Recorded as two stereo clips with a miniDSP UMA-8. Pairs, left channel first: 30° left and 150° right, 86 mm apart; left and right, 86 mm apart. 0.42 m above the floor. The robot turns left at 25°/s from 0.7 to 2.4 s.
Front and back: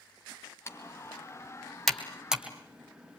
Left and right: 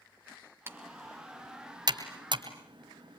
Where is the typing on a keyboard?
30° right, 2.5 m; by 3.2 s 75° right, 2.5 m.